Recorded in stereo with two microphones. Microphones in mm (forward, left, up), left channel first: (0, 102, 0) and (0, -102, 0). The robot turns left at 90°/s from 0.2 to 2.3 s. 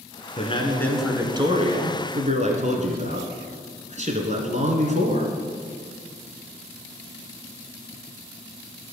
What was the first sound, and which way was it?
A man speaking, 55° left.